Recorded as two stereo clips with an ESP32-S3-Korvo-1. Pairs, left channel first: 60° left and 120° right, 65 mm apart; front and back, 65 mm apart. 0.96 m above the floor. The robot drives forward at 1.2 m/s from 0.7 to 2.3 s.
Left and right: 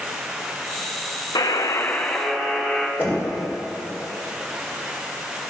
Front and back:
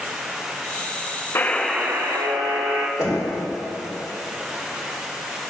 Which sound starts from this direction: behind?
Knocking, at 3.0 s.